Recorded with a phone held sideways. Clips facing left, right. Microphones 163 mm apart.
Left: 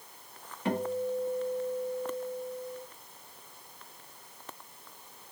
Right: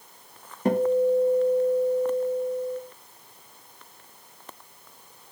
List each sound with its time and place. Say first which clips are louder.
0.7 s a guitar: right 10 dB; 40° right (ahead or behind), 0.6 m